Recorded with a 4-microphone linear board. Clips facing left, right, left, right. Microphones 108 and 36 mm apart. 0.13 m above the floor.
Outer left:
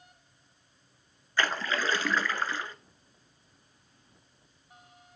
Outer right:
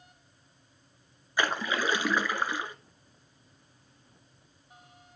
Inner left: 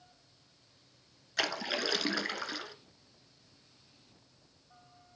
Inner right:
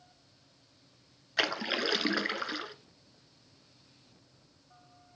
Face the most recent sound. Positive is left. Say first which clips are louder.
# outer right 1 dB, inner right 3 dB
turn(degrees=-15)  # may be behind; listen again after turning